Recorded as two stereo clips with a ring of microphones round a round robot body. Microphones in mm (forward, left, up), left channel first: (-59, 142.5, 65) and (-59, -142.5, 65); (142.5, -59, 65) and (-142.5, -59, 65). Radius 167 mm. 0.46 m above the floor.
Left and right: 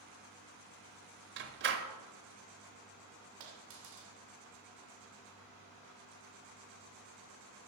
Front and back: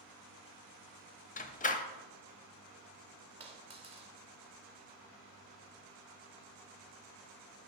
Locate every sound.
1.4 s a door slam: 55° right, 0.8 m
3.4 s a dropped coin: 110° right, 1.5 m